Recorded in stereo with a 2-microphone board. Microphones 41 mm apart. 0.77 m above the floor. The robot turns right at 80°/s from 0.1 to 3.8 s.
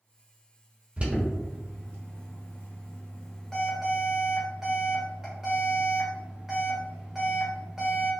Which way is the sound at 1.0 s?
35° right (ahead or behind).